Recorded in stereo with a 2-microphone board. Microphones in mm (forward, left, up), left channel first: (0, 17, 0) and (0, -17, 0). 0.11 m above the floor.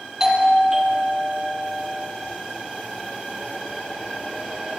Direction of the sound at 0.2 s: 15° right (ahead or behind).